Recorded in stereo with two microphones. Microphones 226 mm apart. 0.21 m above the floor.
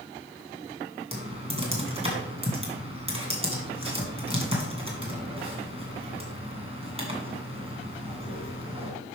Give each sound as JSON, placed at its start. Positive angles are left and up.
{"t": 1.1, "sound": "typing on a keyboard", "side_deg": -25, "distance_m": 2.5}